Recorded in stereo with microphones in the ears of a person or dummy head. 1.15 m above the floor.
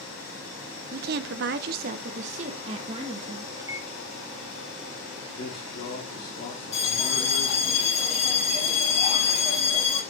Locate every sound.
0.9 s a woman speaking: 45° right (ahead or behind), 0.5 m; by 3.5 s 30° right (ahead or behind), 1.5 m
3.6 s a microwave: 15° right (ahead or behind), 0.5 m
5.3 s a man speaking: 55° left (ahead or behind), 2 m
6.7 s a bell: 35° left (ahead or behind), 2 m